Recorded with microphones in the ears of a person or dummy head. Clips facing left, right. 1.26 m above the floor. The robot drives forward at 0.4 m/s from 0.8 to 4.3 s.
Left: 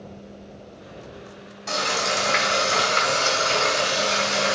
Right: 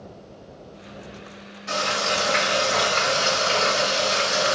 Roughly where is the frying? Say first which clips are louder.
Even; left.